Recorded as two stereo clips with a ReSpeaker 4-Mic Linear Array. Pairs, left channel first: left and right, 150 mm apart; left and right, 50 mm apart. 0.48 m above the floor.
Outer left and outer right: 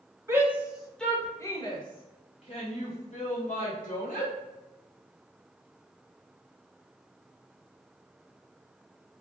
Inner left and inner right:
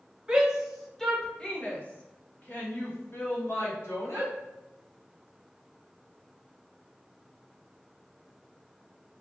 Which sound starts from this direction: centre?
A shout, at 0.3 s.